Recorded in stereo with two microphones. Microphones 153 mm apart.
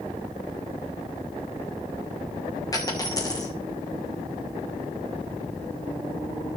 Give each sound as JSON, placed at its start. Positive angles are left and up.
{"t": 2.7, "sound": "a dropped coin", "side_deg": 25, "distance_m": 3.0}